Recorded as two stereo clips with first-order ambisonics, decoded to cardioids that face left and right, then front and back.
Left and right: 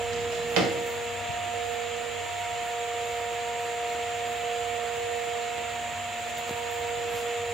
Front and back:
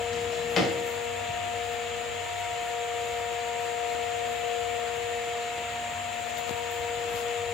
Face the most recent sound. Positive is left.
turn(degrees=-65)